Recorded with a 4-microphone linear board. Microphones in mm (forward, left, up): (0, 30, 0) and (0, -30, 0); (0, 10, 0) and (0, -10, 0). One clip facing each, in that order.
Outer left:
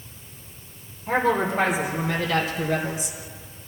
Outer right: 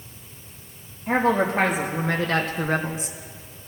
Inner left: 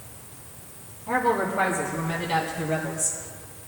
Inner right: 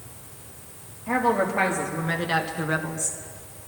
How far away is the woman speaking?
About 3.5 m.